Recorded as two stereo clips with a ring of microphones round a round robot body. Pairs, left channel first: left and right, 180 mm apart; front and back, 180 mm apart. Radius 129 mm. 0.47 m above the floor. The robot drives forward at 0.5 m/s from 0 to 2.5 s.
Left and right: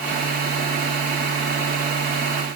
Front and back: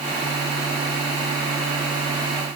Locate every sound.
Only background noise.